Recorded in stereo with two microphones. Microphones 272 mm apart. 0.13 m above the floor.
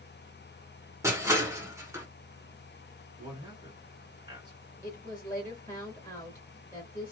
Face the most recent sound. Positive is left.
turn(degrees=10)  # may be behind; listen again after turning